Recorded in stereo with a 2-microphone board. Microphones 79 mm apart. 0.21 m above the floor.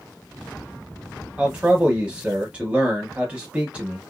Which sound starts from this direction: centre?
A man speaking, at 1.4 s.